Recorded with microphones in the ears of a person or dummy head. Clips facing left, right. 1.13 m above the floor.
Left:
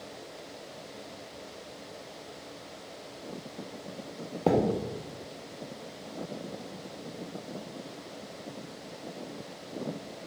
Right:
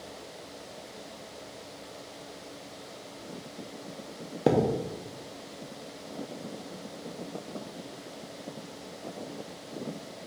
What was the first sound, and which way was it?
A thud, 20° right (ahead or behind).